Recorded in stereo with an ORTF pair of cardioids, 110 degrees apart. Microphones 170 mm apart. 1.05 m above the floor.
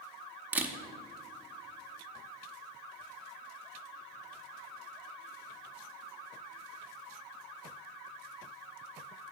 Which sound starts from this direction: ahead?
A camera shutter, at 0.5 s.